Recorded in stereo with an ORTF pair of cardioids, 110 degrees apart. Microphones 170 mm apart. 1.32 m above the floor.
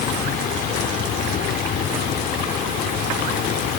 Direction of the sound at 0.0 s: 60° left.